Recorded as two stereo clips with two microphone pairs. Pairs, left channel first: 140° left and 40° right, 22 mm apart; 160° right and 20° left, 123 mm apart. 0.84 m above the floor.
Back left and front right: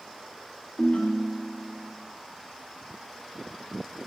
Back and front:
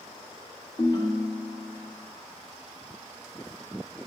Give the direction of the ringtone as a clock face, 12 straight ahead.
7 o'clock.